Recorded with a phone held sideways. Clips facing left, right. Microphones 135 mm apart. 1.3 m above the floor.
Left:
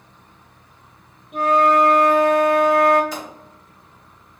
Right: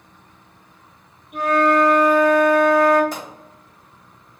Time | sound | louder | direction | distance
1.3 | a flute | left 1 dB | 25° left (ahead or behind) | 1.0 m
3.1 | a pop | even | 55° right (ahead or behind) | 2.0 m